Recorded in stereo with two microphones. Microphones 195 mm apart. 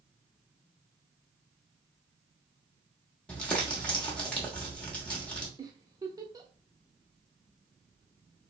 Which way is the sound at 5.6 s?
20° right (ahead or behind).